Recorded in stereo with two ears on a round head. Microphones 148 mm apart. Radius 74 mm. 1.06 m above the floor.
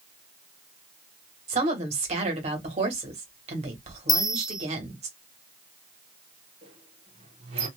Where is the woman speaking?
40° right (ahead or behind), 1.4 m.